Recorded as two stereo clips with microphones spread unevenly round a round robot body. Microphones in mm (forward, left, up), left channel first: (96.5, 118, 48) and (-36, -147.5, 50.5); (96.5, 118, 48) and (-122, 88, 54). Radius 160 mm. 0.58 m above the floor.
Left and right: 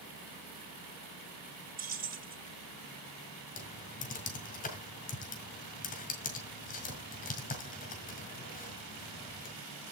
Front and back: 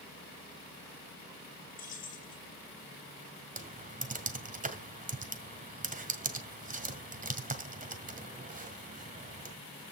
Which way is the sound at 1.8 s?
55° right.